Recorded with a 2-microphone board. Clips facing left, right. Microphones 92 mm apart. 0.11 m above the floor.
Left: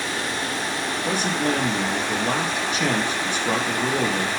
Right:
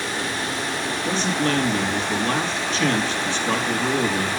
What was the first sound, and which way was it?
A man speaking, 15° left (ahead or behind).